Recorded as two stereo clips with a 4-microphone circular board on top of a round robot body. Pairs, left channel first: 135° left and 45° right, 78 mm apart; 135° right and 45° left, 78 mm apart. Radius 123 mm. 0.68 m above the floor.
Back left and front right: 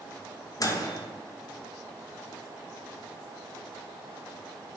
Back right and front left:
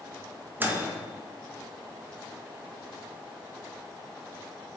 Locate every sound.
0.6 s a microwave: 105° left, 0.5 m